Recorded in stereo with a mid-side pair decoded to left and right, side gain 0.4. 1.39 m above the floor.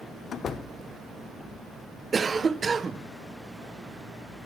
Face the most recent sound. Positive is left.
turn(degrees=-40)